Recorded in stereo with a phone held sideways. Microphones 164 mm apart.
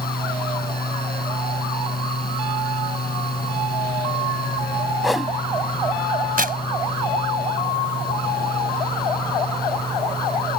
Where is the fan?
65° left (ahead or behind).